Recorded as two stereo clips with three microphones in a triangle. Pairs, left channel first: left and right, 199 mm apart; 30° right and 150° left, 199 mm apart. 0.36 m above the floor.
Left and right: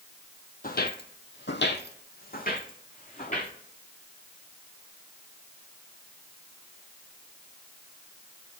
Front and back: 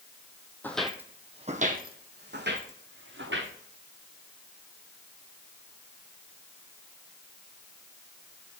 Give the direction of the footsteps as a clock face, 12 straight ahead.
10 o'clock.